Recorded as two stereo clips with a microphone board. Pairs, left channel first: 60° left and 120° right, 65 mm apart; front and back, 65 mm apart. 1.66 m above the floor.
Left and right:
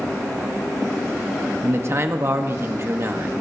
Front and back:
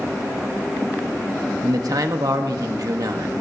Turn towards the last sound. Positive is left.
turn(degrees=-165)